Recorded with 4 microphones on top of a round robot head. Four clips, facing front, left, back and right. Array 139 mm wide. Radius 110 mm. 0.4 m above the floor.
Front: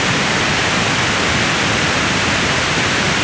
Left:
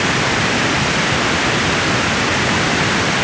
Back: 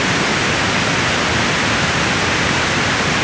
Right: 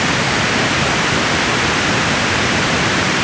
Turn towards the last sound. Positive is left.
No sound to turn to.